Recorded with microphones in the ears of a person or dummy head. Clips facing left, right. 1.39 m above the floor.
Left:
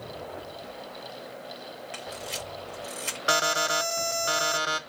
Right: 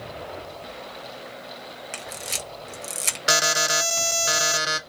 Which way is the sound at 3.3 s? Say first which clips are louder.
Right 1 dB; 30° right (ahead or behind).